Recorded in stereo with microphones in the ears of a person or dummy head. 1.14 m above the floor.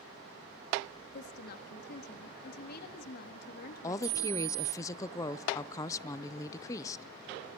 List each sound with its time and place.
1.1 s a woman speaking: 55° left (ahead or behind), 1.5 m
3.8 s a woman speaking: 20° left (ahead or behind), 0.6 m